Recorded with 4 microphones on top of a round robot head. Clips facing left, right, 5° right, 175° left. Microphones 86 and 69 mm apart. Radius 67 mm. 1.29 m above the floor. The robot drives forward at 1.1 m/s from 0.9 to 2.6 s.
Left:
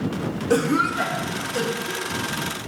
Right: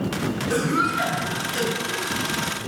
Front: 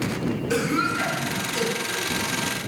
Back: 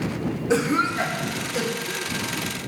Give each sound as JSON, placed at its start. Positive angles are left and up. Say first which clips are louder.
{"t": 0.5, "sound": "a cough", "louder": "left 3 dB, back 3 dB", "azimuth_deg": 120, "distance_m": 1.8}